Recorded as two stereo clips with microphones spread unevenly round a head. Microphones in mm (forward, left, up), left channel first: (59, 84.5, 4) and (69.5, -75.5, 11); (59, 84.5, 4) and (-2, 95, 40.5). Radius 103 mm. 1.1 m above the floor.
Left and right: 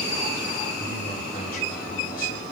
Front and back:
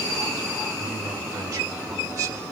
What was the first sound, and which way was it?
A man speaking, 145° left.